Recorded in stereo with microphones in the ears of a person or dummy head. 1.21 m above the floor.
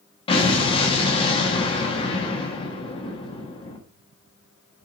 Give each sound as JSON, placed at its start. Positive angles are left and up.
{"t": 0.3, "sound": "an explosion", "side_deg": 25, "distance_m": 1.2}